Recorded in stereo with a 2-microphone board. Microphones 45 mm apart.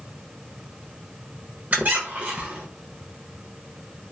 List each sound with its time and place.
1.7 s a squeak: 35° right (ahead or behind), 0.6 m